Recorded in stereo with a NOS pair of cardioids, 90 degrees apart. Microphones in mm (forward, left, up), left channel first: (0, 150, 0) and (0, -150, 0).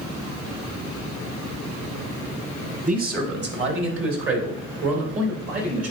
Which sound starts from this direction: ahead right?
A man speaking, at 2.9 s.